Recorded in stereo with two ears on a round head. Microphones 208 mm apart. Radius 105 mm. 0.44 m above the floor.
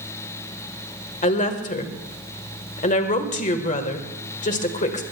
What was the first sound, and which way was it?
A woman speaking, 35° left (ahead or behind).